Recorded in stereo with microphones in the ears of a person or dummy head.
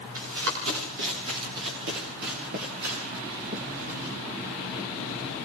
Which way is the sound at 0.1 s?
80° right.